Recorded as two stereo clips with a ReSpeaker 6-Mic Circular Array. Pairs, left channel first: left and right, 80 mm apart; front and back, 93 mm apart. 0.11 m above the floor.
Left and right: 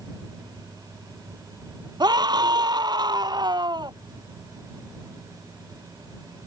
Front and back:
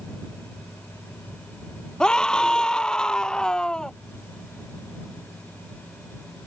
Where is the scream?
80° right.